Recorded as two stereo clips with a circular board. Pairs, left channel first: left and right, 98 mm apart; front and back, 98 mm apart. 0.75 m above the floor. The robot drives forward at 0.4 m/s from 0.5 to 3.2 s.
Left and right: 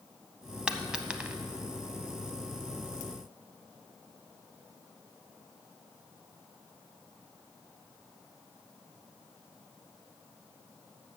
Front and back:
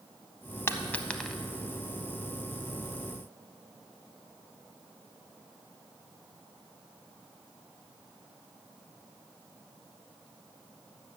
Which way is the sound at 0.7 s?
20° right.